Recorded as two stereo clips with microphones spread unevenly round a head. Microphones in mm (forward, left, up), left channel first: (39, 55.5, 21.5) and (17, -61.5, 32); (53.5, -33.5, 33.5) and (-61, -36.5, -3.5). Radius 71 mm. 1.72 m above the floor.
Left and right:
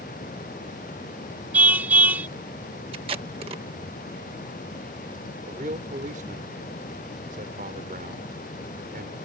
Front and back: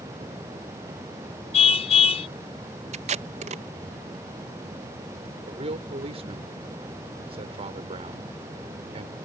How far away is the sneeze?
I don't hear a sneeze.